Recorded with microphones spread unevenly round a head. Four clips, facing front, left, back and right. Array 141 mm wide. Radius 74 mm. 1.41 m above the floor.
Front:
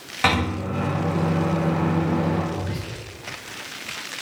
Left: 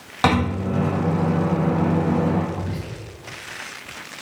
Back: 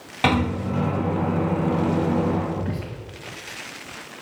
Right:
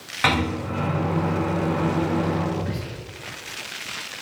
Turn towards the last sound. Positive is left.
turn(degrees=175)